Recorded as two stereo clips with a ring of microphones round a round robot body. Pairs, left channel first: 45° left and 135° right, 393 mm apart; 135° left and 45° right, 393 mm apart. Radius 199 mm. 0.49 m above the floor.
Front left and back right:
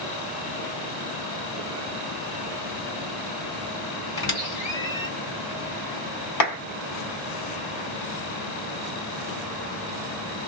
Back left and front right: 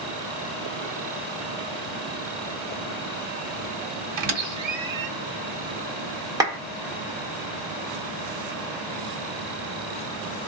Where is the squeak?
35° right, 1.8 m.